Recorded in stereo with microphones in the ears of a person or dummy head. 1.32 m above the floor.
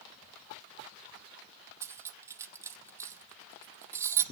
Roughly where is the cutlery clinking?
Centre.